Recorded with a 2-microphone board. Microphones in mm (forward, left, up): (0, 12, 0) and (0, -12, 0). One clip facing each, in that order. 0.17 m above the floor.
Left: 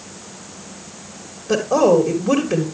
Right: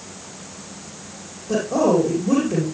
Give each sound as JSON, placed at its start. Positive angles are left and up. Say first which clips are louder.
{"t": 1.5, "sound": "a woman speaking", "louder": "left 4 dB", "side_deg": 40, "distance_m": 3.0}